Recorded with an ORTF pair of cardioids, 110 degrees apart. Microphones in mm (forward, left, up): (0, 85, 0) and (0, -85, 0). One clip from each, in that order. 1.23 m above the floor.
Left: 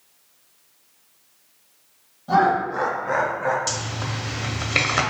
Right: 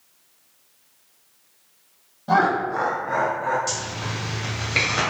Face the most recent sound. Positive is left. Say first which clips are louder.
# even
turn(degrees=30)